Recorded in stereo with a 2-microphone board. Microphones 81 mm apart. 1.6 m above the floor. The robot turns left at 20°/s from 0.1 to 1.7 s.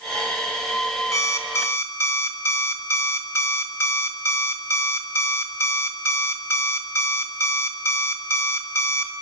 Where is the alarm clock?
40° left (ahead or behind), 1.5 m; by 9.1 s 30° left (ahead or behind), 1.5 m.